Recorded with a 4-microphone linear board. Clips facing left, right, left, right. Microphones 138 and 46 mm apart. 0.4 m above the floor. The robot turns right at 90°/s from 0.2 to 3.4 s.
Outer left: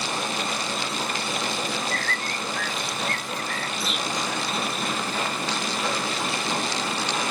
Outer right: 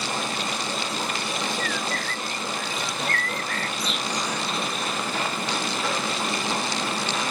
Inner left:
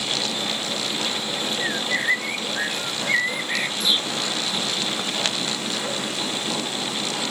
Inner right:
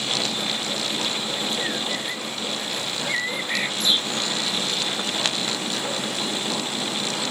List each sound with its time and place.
1.6 s a bird: 15° left; by 4.9 s 175° left